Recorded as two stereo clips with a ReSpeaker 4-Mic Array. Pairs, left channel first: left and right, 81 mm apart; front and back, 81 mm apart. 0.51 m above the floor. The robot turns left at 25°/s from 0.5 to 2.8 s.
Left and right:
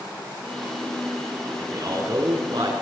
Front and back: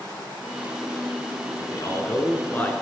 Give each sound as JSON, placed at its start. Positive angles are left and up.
{"t": 1.6, "sound": "a man speaking", "azimuth_deg": -40, "distance_m": 6.5}